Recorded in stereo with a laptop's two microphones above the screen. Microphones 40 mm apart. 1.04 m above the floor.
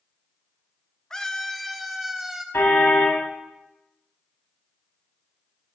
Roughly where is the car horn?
Left.